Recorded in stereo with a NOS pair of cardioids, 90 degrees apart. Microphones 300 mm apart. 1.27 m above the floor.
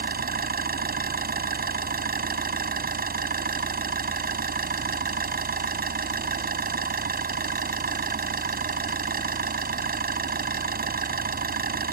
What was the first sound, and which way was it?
An engine running, 30° right.